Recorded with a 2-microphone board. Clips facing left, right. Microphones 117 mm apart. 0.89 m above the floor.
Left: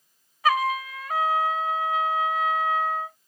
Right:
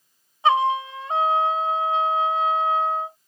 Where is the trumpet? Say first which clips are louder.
Right 4 dB; 25° right (ahead or behind).